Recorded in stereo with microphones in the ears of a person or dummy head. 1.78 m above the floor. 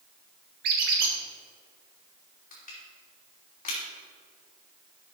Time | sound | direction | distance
0.6 | a squeak | 50° right (ahead or behind) | 1.8 m
2.5 | crushing | 40° left (ahead or behind) | 3 m